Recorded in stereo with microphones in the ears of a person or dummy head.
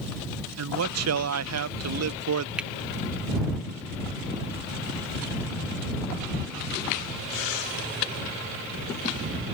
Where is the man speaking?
70° right (ahead or behind).